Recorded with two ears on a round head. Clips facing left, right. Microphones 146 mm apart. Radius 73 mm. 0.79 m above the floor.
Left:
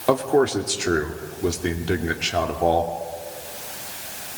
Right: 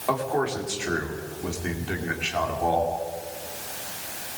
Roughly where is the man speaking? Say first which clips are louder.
Left 7 dB; left.